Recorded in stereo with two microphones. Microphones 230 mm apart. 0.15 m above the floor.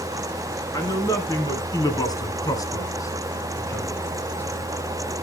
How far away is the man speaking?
About 2 m.